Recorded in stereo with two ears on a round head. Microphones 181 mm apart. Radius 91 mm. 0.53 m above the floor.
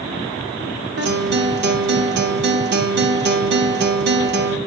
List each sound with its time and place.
1.0 s a guitar: 55° right (ahead or behind), 0.8 m